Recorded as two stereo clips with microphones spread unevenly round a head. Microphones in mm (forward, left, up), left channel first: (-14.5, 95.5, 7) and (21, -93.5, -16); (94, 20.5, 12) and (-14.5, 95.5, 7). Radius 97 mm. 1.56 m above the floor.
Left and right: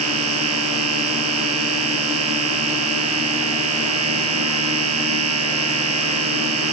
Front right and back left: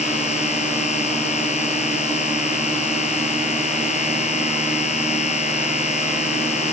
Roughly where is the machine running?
Right.